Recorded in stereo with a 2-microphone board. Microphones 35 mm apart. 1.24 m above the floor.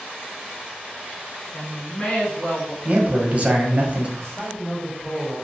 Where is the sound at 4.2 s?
20° left (ahead or behind), 1.6 m.